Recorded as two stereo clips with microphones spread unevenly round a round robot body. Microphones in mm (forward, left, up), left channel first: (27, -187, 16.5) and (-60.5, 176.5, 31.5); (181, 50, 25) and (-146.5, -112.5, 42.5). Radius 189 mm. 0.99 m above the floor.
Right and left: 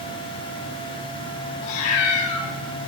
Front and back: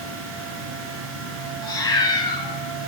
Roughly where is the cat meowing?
Ahead right.